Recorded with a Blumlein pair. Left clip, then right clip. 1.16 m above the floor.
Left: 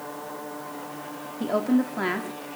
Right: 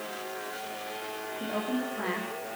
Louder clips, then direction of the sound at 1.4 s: Left 9 dB; 30° left.